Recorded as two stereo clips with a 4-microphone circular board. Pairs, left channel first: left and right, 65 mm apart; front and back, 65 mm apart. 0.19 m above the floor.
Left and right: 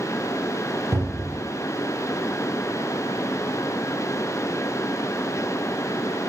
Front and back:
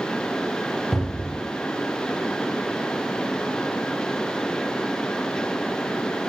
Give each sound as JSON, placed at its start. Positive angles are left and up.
{"t": 0.9, "sound": "a cupboard door", "azimuth_deg": -100, "distance_m": 2.5}